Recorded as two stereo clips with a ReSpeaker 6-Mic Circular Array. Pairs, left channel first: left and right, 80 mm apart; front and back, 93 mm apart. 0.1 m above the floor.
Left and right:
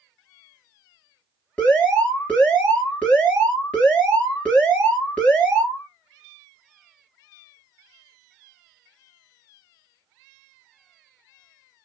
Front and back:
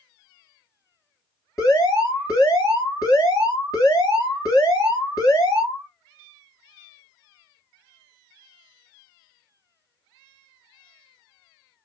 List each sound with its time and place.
1.6 s an alarm: 25° left, 2.5 m